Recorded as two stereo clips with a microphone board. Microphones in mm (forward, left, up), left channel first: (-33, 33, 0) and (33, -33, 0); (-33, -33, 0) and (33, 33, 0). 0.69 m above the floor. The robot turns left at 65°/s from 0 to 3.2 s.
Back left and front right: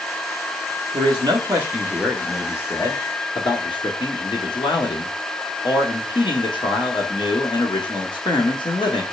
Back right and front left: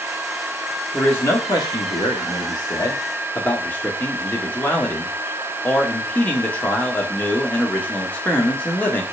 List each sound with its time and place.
0.9 s a man speaking: 60° right, 1.5 m; by 9.0 s 155° left, 1.5 m